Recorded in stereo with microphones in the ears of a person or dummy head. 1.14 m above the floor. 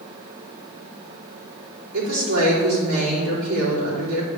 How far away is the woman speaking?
About 3.5 m.